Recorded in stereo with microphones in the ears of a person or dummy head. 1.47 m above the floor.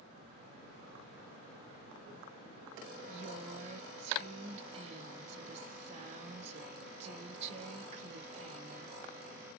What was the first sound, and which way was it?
A woman speaking, 35° right (ahead or behind).